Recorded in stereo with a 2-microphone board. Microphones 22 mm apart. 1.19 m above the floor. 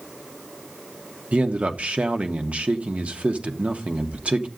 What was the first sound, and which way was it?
A man speaking, 75° right (ahead or behind).